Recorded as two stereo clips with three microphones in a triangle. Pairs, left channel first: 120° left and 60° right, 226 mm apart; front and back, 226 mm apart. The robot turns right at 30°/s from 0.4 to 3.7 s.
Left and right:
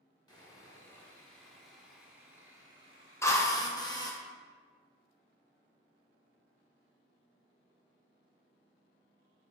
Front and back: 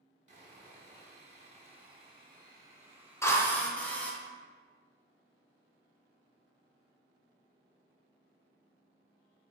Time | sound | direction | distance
0.3 | sawing | 175° left | 1.1 m
3.2 | a drill | 60° left | 0.6 m